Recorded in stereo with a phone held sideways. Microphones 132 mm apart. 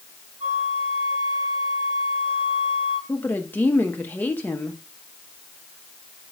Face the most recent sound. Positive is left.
turn(degrees=15)  # may be behind; listen again after turning